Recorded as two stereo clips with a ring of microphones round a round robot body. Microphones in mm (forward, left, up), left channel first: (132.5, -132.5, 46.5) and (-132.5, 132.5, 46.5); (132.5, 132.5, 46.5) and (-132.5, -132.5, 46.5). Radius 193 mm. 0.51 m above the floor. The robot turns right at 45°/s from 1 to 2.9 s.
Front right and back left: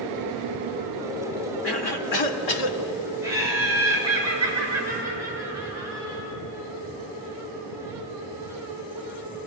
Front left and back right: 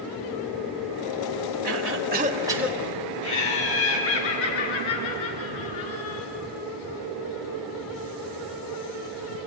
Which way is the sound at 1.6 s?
95° right.